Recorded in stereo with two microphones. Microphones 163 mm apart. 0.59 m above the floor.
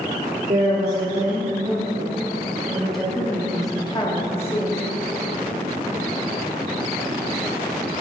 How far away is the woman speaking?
About 1.6 m.